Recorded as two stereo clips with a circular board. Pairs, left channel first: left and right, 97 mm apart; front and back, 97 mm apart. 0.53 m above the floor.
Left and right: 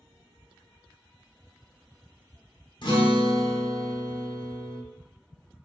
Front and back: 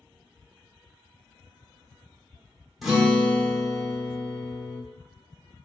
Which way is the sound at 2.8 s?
90° left.